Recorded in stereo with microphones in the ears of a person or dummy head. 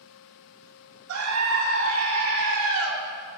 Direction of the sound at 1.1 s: 75° right (ahead or behind).